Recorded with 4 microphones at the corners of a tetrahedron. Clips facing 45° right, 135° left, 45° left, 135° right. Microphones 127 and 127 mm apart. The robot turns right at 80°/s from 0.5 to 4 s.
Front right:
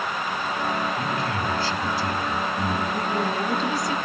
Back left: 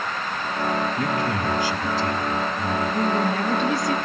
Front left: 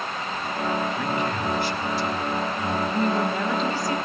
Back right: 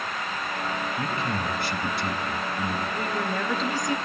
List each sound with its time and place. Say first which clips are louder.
1.0 s a man speaking: back left 2 dB, front left 3 dB; 155° left, 4 m; by 2.8 s 55° right, 4 m
2.9 s a woman speaking: back left 3 dB, front left 5 dB; 80° left, 2.5 m; by 4.0 s 165° left, 2.5 m